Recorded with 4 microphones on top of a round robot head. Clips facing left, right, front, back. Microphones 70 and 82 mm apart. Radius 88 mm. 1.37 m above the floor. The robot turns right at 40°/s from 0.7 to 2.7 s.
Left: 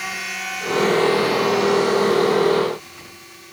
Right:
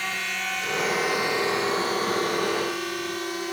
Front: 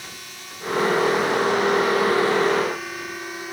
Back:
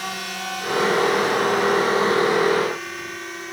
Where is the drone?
170° left; by 3.5 s 85° right.